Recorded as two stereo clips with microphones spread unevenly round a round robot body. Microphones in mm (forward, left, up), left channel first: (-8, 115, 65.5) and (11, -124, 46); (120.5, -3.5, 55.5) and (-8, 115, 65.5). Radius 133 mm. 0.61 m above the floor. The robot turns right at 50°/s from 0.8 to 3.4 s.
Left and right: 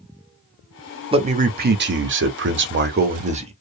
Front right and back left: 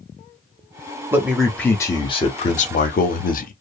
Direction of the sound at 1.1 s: 145° right.